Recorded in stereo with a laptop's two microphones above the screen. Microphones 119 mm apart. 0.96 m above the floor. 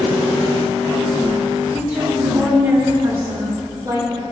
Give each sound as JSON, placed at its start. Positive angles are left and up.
{"t": 1.7, "sound": "a woman speaking", "side_deg": -10, "distance_m": 3.0}